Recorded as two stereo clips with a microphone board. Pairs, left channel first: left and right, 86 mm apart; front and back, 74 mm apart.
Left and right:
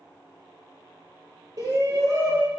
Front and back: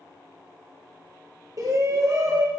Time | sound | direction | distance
1.6 | a shout | 140° right | 5 m